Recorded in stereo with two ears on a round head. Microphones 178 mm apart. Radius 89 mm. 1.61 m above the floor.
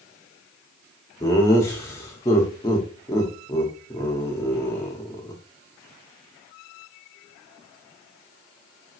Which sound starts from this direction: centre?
Laughter, at 1.2 s.